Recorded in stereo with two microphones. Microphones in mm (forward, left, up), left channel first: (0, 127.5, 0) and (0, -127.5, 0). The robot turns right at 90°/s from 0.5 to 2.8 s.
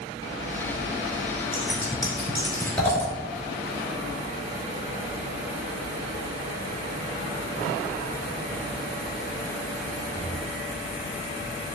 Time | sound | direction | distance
1.5 | scissors | 55° right (ahead or behind) | 2.5 m